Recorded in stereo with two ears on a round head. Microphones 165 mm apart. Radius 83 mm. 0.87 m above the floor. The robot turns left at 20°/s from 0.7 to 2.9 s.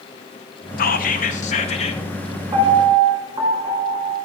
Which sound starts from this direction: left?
Whispering, at 0.8 s.